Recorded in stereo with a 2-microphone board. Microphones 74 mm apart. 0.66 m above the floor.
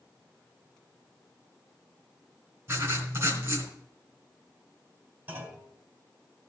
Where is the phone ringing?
No phone ringing in this recording.